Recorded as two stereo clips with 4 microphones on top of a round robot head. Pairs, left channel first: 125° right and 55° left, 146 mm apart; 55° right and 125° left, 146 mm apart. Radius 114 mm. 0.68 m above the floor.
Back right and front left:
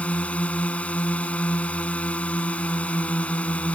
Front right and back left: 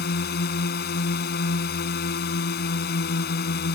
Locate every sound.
0.0 s a drone: 45° right